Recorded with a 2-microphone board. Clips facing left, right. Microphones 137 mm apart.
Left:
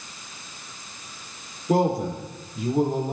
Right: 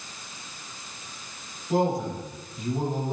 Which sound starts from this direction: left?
A man speaking, at 1.7 s.